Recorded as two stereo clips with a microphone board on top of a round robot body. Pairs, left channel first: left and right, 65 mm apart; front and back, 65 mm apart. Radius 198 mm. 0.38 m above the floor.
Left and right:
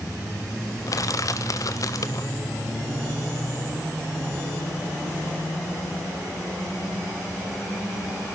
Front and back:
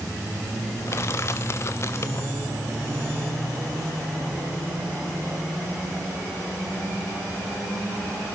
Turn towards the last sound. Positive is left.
turn(degrees=50)